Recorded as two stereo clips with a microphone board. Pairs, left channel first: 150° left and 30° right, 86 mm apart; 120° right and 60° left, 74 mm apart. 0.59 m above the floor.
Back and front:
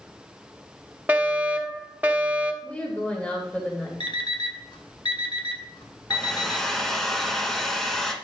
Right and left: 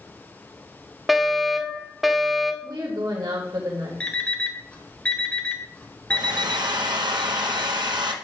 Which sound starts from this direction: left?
A woman speaking, at 2.6 s.